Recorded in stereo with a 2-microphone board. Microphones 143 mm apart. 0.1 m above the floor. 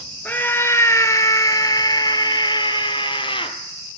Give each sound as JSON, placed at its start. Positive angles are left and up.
{"t": 0.2, "sound": "a scream", "side_deg": 15, "distance_m": 1.5}